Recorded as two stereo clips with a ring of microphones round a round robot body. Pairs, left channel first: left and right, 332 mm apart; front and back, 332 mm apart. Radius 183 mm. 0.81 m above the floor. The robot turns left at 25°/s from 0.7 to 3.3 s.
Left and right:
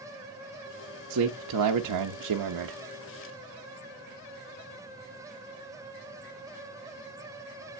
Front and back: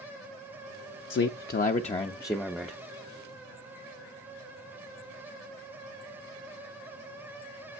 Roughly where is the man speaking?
Ahead right.